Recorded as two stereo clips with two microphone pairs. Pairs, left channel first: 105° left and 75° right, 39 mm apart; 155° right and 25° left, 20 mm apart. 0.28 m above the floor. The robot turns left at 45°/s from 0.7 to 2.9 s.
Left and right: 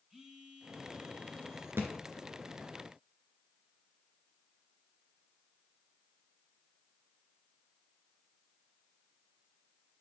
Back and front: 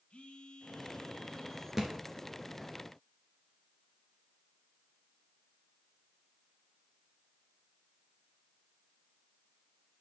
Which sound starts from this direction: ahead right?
A thud, at 1.8 s.